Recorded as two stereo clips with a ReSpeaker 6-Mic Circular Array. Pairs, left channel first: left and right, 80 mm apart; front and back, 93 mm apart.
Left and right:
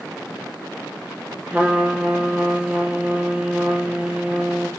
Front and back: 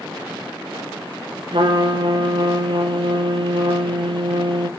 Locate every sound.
1.5 s a trumpet: 165° right, 0.7 m